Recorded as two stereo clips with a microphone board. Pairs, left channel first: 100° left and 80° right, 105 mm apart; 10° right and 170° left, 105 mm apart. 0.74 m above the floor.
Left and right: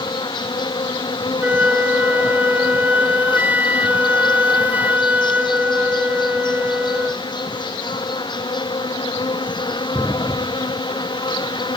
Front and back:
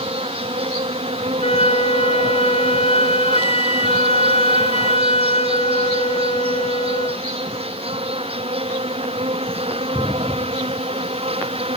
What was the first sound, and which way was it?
An insect, 145° left.